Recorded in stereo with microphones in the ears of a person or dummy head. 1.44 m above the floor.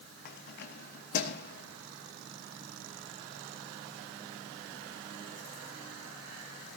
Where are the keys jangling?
55° left (ahead or behind), 1.3 m.